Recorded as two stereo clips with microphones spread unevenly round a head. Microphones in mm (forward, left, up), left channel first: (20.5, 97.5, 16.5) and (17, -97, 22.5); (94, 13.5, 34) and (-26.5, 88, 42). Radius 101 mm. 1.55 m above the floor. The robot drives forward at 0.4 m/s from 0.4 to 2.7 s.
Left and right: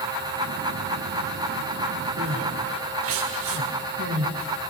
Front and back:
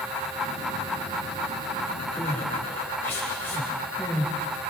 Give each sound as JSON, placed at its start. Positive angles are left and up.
{"t": 2.2, "sound": "crying", "azimuth_deg": -110, "distance_m": 6.5}